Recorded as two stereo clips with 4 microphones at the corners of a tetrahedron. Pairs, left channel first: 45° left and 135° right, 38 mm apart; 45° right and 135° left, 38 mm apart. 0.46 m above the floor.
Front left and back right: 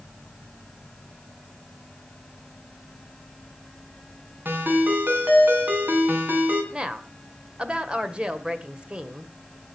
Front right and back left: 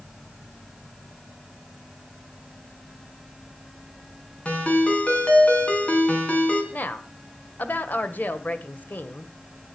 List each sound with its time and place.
4.5 s a ringtone: 100° right, 3.5 m
6.7 s a woman speaking: 75° right, 1.5 m